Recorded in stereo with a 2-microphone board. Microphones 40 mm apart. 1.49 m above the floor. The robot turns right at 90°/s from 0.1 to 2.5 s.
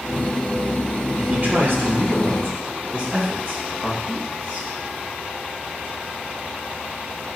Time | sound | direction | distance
1.2 | a man speaking | 155° right | 1.8 m